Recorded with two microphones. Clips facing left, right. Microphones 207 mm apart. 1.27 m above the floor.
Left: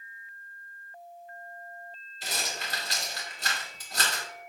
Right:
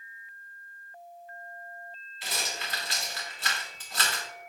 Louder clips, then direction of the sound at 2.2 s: Left 1 dB; 45° left (ahead or behind).